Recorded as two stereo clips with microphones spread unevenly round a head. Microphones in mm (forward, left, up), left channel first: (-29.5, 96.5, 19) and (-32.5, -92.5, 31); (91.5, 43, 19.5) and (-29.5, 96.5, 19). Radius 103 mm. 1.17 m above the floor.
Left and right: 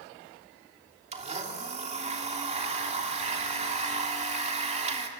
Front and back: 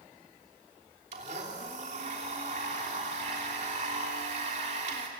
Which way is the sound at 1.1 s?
145° right.